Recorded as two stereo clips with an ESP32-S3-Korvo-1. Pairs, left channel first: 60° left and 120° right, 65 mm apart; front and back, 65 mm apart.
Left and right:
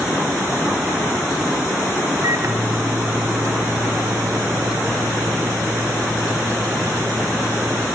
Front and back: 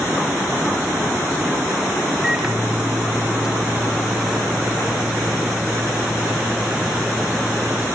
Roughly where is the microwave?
Right.